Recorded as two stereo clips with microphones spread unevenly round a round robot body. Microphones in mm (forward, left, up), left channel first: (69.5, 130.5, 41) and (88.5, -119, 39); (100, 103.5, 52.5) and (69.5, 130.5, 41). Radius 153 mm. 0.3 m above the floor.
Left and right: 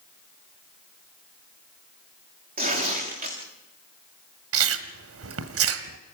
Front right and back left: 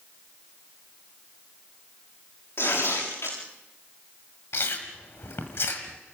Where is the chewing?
80° right, 1.4 m.